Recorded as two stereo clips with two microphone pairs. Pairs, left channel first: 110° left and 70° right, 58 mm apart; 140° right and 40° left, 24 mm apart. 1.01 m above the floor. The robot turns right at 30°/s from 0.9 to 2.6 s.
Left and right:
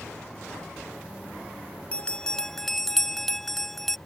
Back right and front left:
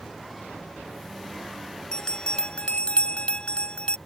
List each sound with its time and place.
1.9 s a bell: 175° left; by 4.0 s 165° right